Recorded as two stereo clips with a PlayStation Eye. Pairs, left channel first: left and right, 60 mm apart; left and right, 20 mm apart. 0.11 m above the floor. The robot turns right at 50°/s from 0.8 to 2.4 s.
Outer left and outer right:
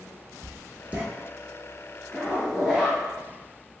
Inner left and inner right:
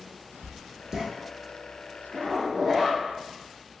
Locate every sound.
0.4 s writing: 25° right (ahead or behind), 0.7 m; by 1.0 s 30° right (ahead or behind), 0.7 m
2.1 s a zipper: 5° left (ahead or behind), 1.1 m; by 3.0 s 5° right (ahead or behind), 1.1 m